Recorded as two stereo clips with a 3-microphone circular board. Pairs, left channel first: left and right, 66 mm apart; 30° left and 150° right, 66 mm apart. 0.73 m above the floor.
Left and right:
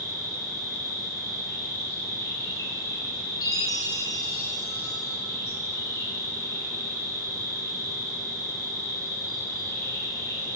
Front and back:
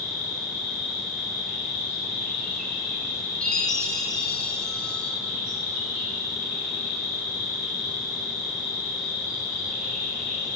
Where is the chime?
110° left, 1.9 m.